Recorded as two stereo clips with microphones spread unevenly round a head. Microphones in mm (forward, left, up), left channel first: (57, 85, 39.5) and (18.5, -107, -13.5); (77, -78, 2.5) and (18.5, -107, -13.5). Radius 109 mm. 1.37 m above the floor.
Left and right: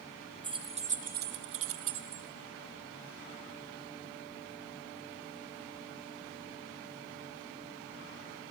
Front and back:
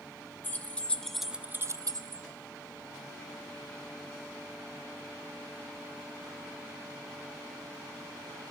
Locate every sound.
0.4 s keys jangling: 30° right, 1.5 m; by 2.2 s 150° right, 1.0 m